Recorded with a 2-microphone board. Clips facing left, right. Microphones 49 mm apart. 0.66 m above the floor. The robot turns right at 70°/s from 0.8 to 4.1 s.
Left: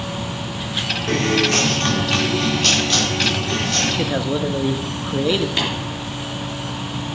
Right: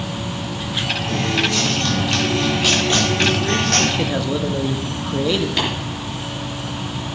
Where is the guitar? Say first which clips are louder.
Left 4 dB; 80° left, 1.9 m; by 3.9 s 80° right, 1.9 m.